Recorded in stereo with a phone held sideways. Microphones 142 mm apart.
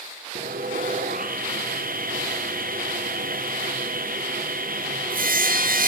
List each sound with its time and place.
0.3 s sawing: 90° right, 0.7 m